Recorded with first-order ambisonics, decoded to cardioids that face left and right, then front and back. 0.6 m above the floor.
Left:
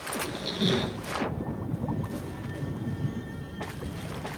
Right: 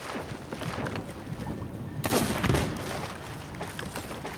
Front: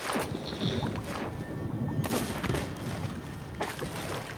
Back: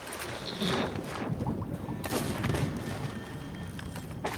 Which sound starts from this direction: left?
A squeak, at 0.2 s.